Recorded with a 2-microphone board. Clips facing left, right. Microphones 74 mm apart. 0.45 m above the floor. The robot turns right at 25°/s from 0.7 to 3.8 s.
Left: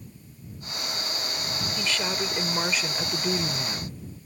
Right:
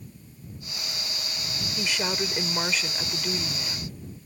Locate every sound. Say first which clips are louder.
1.8 s a woman speaking: right 1 dB; 20° right; by 4.0 s 30° left